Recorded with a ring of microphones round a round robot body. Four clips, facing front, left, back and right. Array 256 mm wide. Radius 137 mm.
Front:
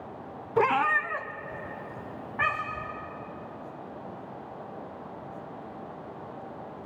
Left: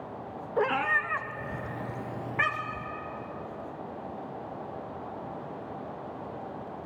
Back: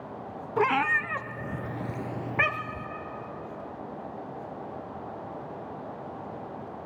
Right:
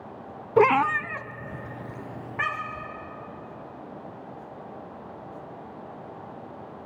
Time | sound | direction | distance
0.6 | a cat meowing | 85° right | 0.5 m